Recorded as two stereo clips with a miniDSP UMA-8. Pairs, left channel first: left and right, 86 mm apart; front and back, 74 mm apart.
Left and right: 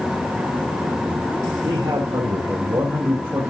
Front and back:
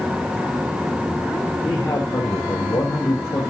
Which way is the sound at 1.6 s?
50° right.